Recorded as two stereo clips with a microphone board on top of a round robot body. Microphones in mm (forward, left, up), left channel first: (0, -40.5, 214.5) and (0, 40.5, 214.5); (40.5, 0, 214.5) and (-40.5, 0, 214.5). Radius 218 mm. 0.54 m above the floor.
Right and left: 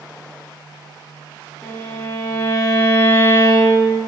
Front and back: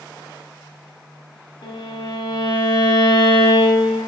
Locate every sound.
1.6 s a violin: 20° right, 0.8 m